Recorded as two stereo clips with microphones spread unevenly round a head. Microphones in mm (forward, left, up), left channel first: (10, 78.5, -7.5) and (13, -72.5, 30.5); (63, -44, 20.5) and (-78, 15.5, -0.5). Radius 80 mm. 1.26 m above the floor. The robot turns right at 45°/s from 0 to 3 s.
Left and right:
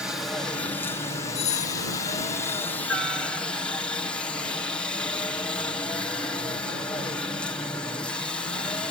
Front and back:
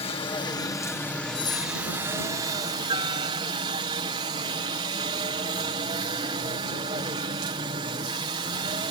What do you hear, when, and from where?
0.0 s a helicopter: 10° left; by 8.9 s 145° left
1.4 s a doorbell: 35° left; by 1.8 s 60° left